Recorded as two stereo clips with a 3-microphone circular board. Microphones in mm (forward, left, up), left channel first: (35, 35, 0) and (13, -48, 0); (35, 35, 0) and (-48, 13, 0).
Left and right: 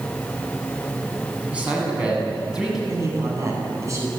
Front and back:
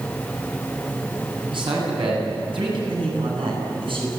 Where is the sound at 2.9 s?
160° right, 9.5 m.